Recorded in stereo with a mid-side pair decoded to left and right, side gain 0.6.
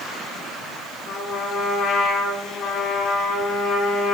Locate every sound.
1.1 s a trumpet: 55° left, 5 m